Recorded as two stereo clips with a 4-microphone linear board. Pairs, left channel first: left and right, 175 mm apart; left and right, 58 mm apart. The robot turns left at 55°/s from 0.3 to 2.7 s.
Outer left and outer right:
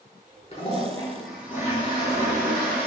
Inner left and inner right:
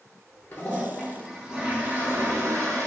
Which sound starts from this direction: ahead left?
A toilet flushing, at 0.5 s.